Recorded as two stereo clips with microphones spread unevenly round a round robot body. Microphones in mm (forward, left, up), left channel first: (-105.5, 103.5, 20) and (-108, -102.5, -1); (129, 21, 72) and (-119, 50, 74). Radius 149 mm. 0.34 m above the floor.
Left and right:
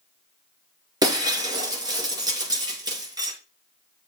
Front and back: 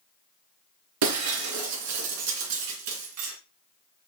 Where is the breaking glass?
160° right, 3.5 m.